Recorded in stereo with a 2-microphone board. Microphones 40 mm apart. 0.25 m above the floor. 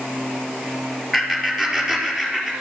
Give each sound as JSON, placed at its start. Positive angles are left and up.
{"t": 1.1, "sound": "laughter", "side_deg": -5, "distance_m": 4.5}